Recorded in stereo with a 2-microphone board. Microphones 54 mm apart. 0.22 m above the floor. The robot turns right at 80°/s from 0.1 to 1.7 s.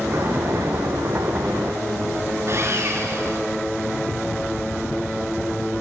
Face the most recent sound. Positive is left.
turn(degrees=-55)  # may be behind; listen again after turning